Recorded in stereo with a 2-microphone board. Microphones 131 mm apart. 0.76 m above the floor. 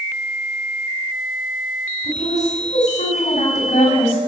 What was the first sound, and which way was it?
A woman speaking, 75° left (ahead or behind).